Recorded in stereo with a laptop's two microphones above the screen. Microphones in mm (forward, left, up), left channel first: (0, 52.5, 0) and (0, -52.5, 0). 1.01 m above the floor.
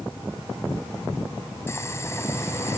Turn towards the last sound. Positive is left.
turn(degrees=25)  # may be behind; listen again after turning